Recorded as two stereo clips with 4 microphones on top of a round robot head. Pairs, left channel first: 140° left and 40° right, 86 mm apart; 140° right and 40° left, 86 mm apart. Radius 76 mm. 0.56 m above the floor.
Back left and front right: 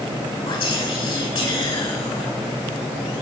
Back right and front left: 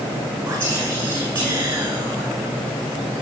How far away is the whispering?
About 7.5 m.